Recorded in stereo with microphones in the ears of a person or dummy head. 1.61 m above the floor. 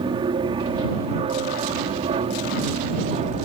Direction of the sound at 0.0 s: 20° right (ahead or behind).